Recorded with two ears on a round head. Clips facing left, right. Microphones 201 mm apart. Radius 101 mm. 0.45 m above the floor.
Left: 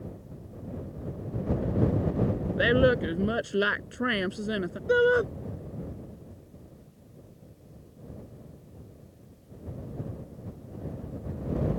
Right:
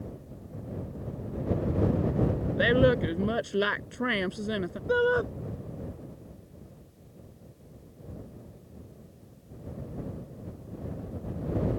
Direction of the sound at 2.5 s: 5° left (ahead or behind).